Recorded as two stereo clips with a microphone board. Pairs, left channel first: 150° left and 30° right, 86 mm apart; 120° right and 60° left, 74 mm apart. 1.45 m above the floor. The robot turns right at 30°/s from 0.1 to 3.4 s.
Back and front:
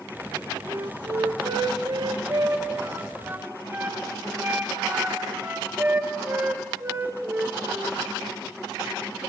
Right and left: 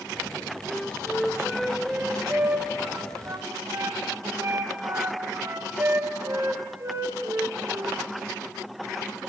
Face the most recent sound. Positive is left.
turn(degrees=35)